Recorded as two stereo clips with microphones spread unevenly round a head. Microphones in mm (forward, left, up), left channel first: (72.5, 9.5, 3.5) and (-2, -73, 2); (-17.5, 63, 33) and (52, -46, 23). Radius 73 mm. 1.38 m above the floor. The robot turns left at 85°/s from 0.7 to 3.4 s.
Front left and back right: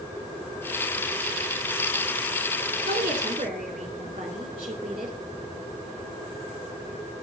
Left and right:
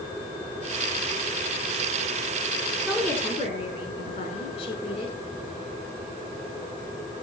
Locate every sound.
2.9 s a woman speaking: 140° right, 4 m; by 5.2 s 170° left, 4 m